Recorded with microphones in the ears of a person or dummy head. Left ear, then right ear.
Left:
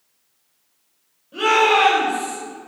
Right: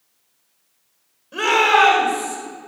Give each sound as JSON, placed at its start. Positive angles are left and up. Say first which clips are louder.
{"t": 1.3, "sound": "a shout", "louder": "right 1 dB", "side_deg": -60, "distance_m": 4.5}